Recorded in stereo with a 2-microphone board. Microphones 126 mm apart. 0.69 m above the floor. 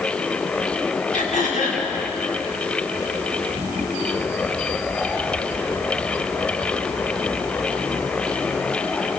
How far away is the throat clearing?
About 5 m.